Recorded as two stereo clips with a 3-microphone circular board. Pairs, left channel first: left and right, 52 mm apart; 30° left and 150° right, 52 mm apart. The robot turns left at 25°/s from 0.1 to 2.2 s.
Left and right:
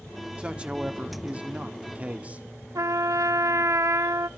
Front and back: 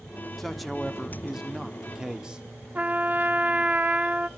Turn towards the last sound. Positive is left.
turn(degrees=-90)